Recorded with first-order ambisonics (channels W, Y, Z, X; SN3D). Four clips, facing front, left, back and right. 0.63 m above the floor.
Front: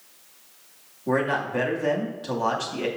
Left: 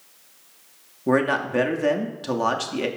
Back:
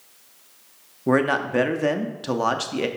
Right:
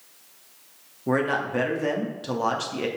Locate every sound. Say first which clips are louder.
1.1 s a man speaking: left 3 dB, back 4 dB; 155° left, 0.6 m